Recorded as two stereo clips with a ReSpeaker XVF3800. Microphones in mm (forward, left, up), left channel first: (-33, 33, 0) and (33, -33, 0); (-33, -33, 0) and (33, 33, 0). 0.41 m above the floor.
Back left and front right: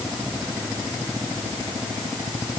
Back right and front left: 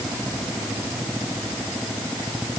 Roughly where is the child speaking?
No child speaking in this recording.